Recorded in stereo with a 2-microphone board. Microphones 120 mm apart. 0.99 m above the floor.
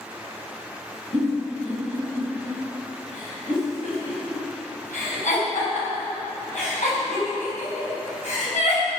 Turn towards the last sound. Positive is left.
turn(degrees=80)